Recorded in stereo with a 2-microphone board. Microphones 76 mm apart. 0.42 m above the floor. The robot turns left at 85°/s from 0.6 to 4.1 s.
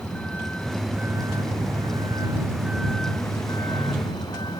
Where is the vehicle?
15° left; by 4.6 s 75° left.